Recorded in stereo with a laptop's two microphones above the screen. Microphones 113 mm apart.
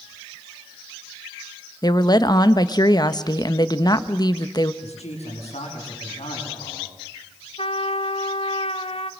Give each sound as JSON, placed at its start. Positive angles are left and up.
{"t": 1.8, "sound": "a woman speaking", "side_deg": 40, "distance_m": 1.2}
{"t": 4.8, "sound": "a man speaking", "side_deg": 85, "distance_m": 8.0}
{"t": 7.6, "sound": "a trumpet", "side_deg": 65, "distance_m": 1.1}